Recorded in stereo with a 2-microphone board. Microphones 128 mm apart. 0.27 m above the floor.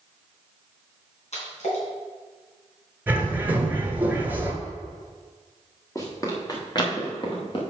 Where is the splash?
60° left (ahead or behind), 3.5 m.